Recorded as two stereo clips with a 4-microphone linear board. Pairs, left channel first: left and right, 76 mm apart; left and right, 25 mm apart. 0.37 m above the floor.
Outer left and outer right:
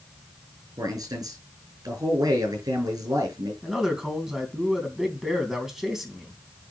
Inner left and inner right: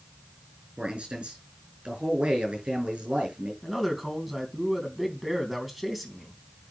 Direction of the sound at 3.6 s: 5° right (ahead or behind).